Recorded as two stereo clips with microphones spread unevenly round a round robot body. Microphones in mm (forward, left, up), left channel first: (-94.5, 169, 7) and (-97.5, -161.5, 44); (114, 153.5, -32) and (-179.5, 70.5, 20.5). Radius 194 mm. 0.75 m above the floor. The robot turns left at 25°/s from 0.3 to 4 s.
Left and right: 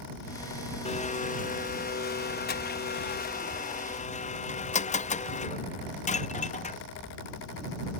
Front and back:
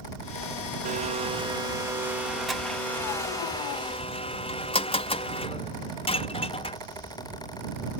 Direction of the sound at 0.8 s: 130° left.